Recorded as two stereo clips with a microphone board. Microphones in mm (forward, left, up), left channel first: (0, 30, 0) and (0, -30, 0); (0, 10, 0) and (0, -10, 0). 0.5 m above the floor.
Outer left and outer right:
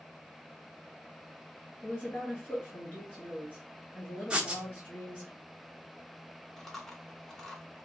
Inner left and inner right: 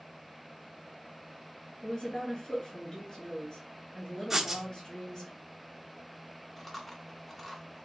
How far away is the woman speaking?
About 3 m.